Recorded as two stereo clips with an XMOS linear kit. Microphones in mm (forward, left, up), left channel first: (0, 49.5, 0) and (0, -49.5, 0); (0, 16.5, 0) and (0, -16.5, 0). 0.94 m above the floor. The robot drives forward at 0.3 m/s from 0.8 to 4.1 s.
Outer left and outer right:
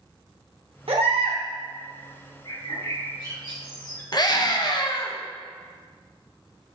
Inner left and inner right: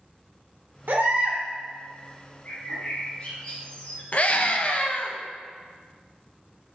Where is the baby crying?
75° right (ahead or behind), 0.7 m; by 1.4 s 65° right (ahead or behind), 0.8 m.